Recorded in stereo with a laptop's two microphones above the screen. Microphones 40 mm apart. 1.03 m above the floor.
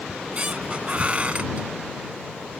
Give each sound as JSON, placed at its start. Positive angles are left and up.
{"t": 0.1, "sound": "a squeak", "side_deg": -30}